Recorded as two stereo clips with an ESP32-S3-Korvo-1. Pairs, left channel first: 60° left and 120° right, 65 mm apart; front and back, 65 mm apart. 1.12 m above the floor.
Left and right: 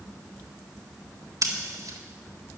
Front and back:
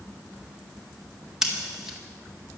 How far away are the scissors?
About 1.8 m.